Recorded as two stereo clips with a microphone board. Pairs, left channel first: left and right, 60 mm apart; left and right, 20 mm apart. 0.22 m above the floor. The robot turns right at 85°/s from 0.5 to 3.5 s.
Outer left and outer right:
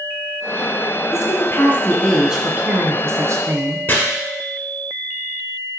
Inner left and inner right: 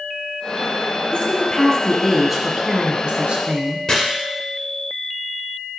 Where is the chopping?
35° left (ahead or behind), 2.5 m.